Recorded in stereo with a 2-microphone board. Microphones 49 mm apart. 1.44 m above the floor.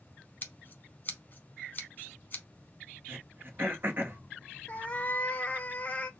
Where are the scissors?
35° left (ahead or behind), 1.0 m.